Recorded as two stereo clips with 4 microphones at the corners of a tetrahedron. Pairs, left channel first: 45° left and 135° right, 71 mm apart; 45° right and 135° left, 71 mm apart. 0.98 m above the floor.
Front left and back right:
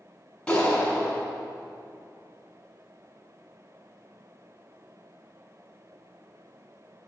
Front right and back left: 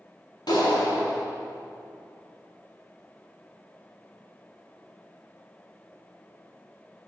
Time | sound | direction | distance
0.5 | a clap | 35° right | 6 m